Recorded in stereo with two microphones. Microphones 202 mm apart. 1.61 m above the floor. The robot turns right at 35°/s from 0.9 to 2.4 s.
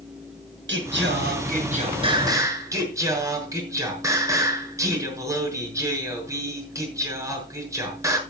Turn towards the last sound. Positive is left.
turn(degrees=-15)